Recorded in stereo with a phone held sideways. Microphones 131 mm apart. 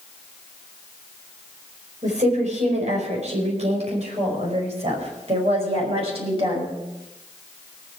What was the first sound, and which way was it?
A woman speaking, 70° right (ahead or behind).